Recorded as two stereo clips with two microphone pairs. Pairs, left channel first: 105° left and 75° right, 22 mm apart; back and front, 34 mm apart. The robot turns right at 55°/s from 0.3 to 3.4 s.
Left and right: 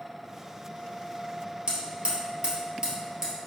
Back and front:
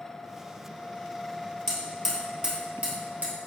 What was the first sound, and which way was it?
Hammering, 100° right.